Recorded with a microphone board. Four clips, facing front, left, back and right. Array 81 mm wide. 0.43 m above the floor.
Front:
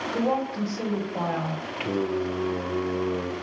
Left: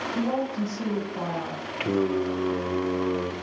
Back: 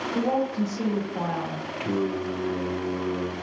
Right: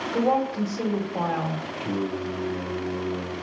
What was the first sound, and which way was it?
A woman speaking, 55° right.